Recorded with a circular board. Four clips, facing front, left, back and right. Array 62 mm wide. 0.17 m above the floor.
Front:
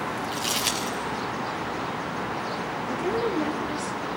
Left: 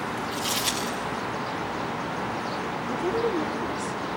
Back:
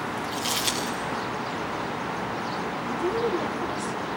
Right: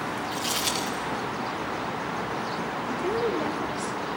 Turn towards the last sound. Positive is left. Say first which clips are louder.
# left 1 dB, back 1 dB
turn(degrees=-25)